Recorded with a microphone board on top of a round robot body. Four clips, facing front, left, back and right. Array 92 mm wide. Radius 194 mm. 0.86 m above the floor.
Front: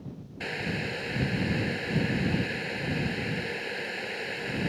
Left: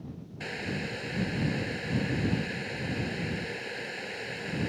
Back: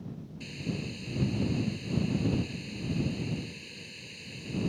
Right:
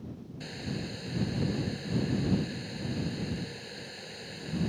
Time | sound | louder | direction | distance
0.4 | boiling | left 3 dB, front 4 dB | 25° left | ?